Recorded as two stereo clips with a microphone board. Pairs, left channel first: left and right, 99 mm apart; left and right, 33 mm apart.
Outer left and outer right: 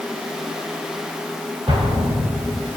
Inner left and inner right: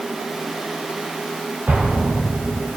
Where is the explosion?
65° right (ahead or behind), 5.5 m.